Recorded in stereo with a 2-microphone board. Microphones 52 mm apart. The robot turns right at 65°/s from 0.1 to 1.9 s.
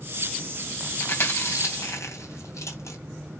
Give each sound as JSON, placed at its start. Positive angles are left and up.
{"t": 1.0, "sound": "chewing", "side_deg": 40, "distance_m": 3.0}